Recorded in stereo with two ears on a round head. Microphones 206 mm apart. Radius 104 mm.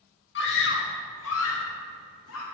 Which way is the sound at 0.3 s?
55° left (ahead or behind).